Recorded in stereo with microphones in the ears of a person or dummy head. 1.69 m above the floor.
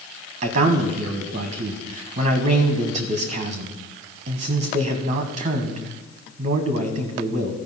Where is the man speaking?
40° right (ahead or behind), 1.1 m.